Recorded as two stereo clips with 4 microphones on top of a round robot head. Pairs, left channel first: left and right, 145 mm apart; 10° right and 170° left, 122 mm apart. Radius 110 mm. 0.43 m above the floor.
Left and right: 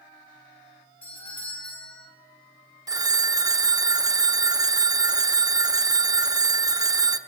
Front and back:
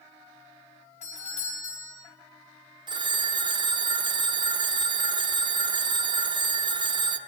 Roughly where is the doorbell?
Ahead.